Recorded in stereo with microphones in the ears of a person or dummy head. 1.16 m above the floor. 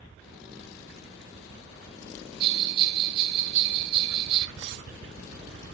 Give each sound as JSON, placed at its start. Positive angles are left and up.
{"t": 2.4, "sound": "a bell", "side_deg": -30, "distance_m": 0.9}
{"t": 4.6, "sound": "cutlery clinking", "side_deg": -60, "distance_m": 1.5}